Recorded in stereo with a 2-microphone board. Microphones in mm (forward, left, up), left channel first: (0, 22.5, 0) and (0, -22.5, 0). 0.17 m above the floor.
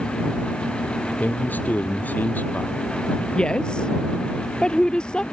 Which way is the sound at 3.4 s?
20° left (ahead or behind).